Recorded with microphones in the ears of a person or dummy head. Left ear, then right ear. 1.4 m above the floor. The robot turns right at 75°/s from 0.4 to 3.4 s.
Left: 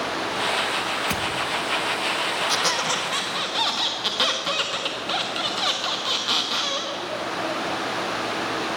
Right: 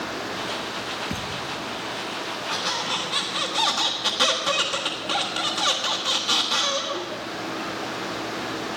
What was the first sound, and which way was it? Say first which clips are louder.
A thud: left 5 dB; 30° left (ahead or behind).